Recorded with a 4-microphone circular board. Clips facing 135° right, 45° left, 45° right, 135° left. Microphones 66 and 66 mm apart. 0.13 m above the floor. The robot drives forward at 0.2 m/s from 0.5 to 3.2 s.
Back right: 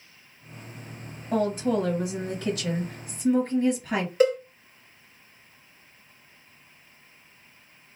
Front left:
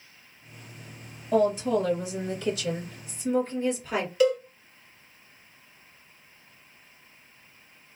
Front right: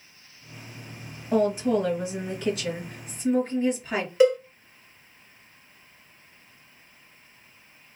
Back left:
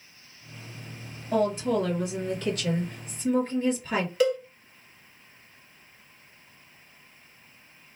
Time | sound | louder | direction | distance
1.3 | a woman speaking | front left 2 dB, front right 2 dB | 120° right | 2 m
4.2 | a cowbell | back right 1 dB, front right 6 dB | 105° right | 1.3 m